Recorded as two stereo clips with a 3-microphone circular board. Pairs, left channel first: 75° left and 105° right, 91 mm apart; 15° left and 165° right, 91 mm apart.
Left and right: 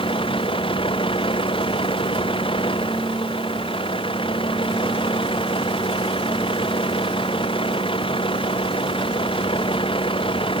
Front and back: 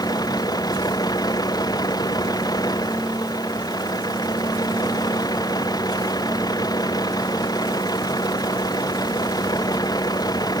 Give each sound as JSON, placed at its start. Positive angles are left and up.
{"t": 0.0, "sound": "a vehicle", "azimuth_deg": 60}